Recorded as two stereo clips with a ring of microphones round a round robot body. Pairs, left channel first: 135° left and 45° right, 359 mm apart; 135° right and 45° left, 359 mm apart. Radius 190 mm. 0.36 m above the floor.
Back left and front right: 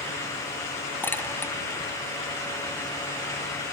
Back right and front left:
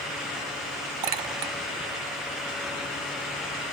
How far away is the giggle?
I don't hear a giggle.